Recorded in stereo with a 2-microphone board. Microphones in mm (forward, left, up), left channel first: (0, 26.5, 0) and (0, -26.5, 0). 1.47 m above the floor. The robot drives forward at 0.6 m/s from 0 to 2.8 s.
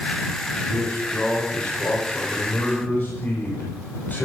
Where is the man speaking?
30° left (ahead or behind), 7.5 m; by 4.3 s 35° left (ahead or behind), 6.5 m.